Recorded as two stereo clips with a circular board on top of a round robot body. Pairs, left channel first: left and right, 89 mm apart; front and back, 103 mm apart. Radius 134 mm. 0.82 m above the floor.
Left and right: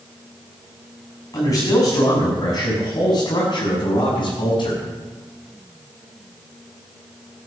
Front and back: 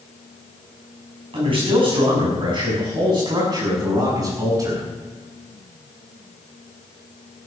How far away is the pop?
I don't hear a pop.